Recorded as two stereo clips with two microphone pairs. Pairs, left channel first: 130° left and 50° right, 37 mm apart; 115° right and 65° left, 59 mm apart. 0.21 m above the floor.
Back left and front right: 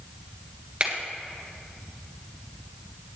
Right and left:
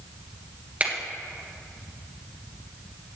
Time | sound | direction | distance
0.8 | a finger snap | 5° left | 2 m